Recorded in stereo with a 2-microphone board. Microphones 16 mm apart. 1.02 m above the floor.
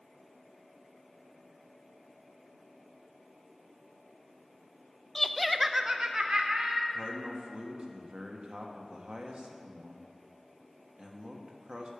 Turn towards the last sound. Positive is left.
turn(degrees=-75)  # may be behind; listen again after turning